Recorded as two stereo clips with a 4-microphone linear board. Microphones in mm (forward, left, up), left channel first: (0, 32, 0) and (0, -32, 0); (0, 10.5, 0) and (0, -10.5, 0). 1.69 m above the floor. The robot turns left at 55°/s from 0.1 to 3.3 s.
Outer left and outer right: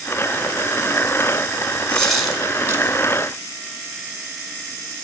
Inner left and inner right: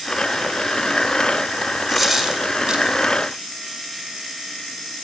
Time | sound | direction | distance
1.9 | a dropped coin | 15° left (ahead or behind) | 6 m